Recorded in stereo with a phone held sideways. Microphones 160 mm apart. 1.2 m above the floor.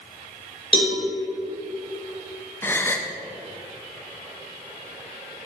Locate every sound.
0.7 s a cowbell: 35° left (ahead or behind), 3.5 m
2.6 s a gasp: 15° left (ahead or behind), 0.6 m